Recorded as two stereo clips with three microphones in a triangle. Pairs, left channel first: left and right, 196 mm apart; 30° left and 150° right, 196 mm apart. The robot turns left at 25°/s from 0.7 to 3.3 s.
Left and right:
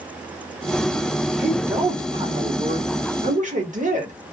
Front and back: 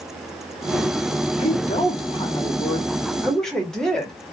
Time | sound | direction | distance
1.4 | a woman speaking | 10° right | 1.2 m